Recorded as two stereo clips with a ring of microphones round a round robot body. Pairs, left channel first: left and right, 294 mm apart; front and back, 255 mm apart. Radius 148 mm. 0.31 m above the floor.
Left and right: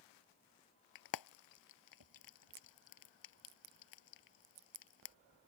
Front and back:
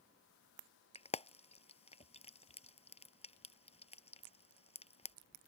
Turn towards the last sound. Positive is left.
turn(degrees=65)